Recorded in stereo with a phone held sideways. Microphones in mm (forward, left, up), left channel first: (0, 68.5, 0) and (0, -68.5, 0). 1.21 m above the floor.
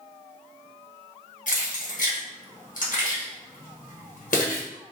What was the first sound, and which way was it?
Keys jangling, 70° left (ahead or behind).